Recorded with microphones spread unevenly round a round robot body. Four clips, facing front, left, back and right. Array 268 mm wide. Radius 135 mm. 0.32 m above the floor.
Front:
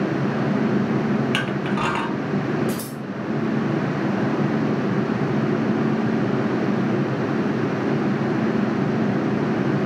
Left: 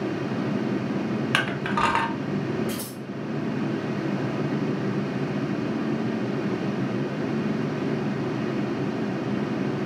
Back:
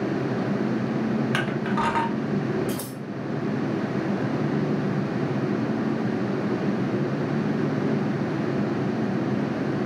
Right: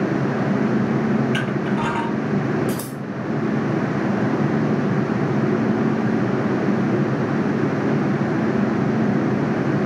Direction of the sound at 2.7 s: 130° right.